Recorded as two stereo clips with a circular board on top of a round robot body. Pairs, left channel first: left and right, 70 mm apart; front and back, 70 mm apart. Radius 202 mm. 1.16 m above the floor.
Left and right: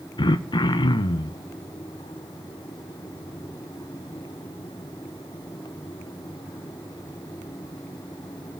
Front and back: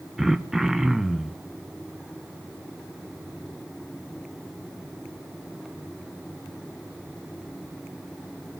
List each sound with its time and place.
0.2 s throat clearing: 95° left, 0.9 m